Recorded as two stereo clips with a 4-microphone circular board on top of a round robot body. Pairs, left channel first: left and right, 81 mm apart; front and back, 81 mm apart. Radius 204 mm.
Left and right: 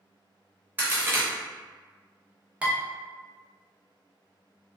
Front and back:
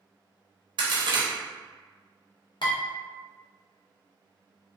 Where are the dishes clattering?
15° right, 0.8 m.